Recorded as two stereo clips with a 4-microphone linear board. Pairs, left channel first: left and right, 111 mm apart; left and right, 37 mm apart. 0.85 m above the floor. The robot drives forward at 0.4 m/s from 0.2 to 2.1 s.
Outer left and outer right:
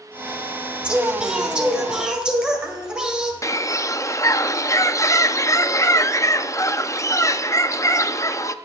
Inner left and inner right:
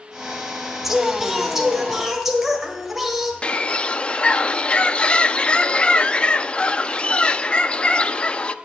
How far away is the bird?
About 0.5 m.